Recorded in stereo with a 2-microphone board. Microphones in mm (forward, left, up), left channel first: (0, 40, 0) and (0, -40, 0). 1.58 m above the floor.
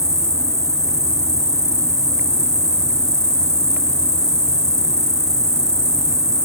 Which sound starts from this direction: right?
An insect, at 0.0 s.